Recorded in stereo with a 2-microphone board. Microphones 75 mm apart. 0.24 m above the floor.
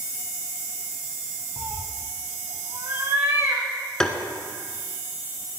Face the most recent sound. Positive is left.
turn(degrees=10)  # may be behind; listen again after turning